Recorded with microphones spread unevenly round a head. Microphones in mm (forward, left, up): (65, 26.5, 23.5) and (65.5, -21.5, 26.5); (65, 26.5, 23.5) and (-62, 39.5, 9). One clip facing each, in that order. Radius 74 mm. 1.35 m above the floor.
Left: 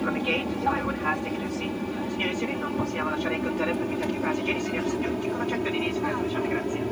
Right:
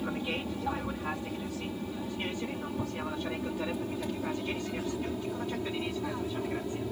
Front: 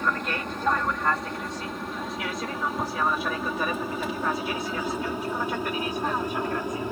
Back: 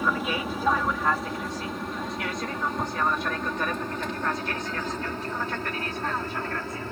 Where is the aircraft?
90° left; by 6.9 s 70° left.